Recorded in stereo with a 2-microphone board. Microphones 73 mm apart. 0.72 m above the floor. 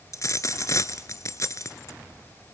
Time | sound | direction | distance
0.1 | a dropped coin | 45° left (ahead or behind) | 0.9 m